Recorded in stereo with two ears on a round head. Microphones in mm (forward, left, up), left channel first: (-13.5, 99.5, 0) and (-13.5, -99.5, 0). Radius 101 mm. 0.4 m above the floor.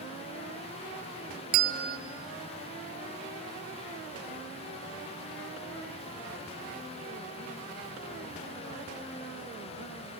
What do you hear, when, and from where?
1.5 s a bell: 45° right (ahead or behind), 1.1 m